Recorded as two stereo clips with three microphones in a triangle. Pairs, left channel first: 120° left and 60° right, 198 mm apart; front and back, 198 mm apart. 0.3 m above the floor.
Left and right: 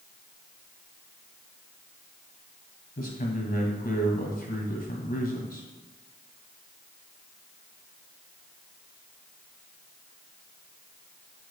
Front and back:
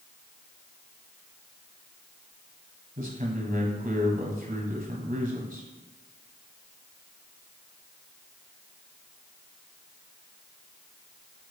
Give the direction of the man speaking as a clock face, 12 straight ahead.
7 o'clock.